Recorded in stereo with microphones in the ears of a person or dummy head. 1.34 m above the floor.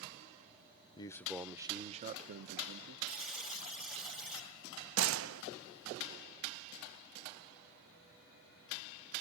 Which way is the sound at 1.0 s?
15° left (ahead or behind).